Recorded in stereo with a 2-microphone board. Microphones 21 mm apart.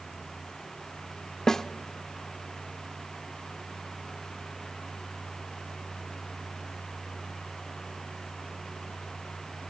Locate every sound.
1.5 s a snare drum: 30° left (ahead or behind), 0.8 m